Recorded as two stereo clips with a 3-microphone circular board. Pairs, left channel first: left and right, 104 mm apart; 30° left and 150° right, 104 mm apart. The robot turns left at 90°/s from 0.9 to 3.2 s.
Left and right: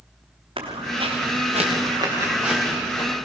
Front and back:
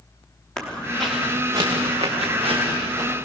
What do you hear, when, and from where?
0.6 s footsteps: 50° right, 4.5 m; by 3.1 s 140° left, 5 m